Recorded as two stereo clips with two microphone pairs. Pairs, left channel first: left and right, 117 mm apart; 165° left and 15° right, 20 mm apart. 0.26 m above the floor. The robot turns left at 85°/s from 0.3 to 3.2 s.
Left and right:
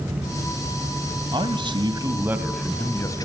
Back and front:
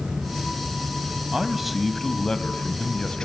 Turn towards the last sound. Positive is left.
turn(degrees=130)